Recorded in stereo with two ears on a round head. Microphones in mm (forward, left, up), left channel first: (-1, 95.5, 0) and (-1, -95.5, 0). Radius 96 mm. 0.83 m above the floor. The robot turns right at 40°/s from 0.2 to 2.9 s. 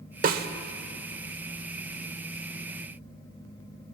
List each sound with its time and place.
0.2 s a snare drum: 45° right (ahead or behind), 1.2 m; by 0.5 s 50° right (ahead or behind), 1.2 m